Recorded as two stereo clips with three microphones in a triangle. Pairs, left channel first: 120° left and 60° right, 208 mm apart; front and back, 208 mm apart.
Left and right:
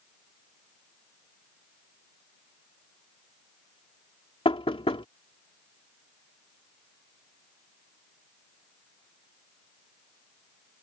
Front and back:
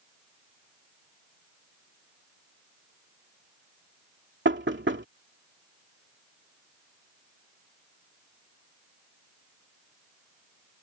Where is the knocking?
Straight behind.